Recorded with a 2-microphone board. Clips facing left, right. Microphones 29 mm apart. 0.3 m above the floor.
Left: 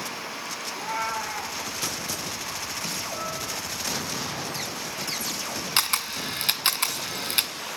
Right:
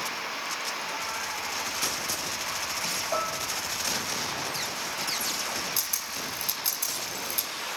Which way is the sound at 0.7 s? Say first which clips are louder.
Left 4 dB; 50° left (ahead or behind).